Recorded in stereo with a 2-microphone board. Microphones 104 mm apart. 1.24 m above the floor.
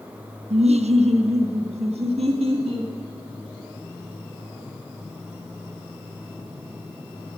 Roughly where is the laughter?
Right.